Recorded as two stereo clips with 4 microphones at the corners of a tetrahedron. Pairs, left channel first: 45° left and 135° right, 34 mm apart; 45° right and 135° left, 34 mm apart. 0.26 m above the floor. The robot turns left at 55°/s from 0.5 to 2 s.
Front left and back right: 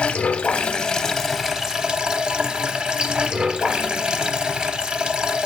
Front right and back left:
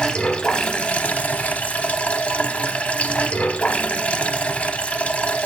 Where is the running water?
Straight ahead, 0.7 m; by 5.5 s 85° right, 0.7 m.